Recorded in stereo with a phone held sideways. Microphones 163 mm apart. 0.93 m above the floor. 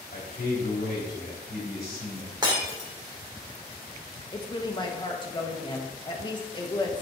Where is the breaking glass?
30° right (ahead or behind), 1.9 m.